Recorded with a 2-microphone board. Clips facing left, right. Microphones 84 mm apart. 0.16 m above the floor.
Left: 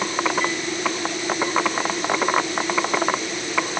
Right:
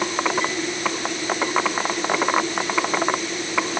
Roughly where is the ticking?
I don't hear ticking.